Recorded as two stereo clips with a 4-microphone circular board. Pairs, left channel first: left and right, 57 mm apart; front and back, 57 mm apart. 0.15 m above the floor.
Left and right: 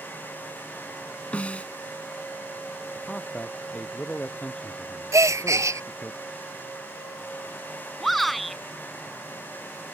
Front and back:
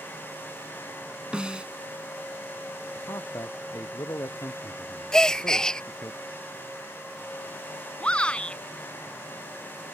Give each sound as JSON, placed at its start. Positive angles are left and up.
{"t": 1.3, "sound": "a snare drum", "azimuth_deg": 125}
{"t": 3.0, "sound": "a man speaking", "azimuth_deg": 20}
{"t": 5.1, "sound": "a gasp", "azimuth_deg": -75}
{"t": 8.0, "sound": "a shout", "azimuth_deg": 5}